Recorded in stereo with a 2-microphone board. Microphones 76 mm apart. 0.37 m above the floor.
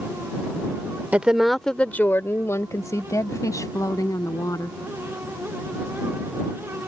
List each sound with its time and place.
1.1 s a woman speaking: 20° right (ahead or behind); by 4.8 s 55° left (ahead or behind)